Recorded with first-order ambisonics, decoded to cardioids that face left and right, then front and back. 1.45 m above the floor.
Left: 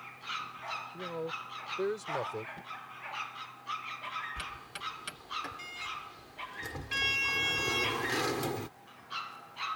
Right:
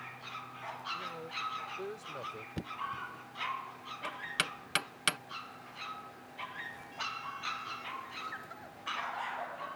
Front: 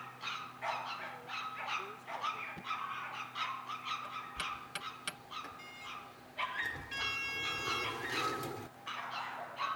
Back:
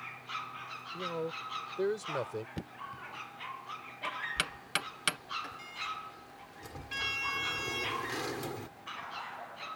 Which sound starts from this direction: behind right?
Knocking, at 2.6 s.